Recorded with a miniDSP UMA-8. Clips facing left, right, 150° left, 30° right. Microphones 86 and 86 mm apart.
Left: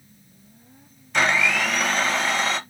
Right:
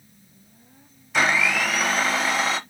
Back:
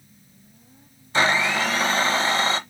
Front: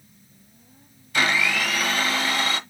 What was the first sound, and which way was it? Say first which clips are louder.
A blender: even, back 2 dB; straight behind.